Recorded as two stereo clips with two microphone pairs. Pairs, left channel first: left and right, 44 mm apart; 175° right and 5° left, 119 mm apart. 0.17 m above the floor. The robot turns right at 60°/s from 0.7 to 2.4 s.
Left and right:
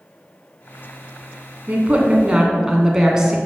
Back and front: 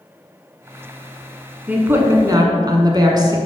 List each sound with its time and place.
1.7 s a woman speaking: 70° right, 1.3 m; by 3.4 s 25° right, 1.3 m